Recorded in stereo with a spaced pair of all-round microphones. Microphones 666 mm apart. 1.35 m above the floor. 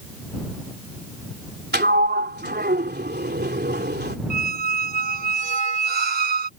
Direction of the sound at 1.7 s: 15° right (ahead or behind).